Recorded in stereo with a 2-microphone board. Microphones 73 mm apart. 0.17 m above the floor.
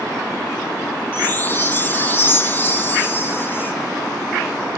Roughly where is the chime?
Left.